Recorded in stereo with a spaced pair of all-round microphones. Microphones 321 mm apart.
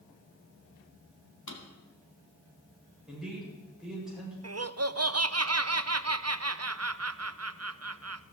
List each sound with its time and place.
1.5 s a drawer: 65° left (ahead or behind), 2.5 m
3.1 s a man speaking: centre (ahead or behind), 8 m
4.4 s laughter: 50° right (ahead or behind), 0.7 m